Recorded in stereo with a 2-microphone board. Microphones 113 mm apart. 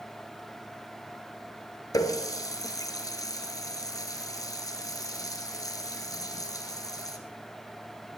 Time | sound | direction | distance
1.9 | a running tap | 30° left (ahead or behind) | 1.5 m